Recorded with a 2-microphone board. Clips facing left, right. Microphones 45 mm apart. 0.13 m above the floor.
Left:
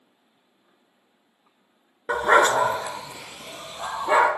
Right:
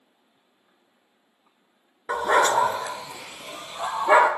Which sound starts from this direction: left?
A dog barking, at 2.1 s.